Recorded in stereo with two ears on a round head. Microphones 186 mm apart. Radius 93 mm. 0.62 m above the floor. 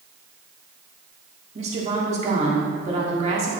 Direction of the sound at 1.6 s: 30° right (ahead or behind).